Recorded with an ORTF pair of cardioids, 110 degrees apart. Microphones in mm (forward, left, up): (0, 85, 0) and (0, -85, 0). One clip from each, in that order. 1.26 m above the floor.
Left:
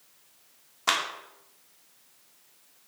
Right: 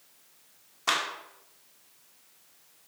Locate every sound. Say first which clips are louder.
0.9 s a clap: left 1 dB; 15° left, 1.6 m